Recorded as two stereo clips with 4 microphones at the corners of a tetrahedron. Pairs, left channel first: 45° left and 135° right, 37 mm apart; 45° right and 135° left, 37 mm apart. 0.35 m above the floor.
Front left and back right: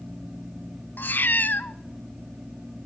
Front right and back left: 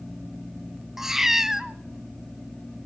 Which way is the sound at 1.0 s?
55° left.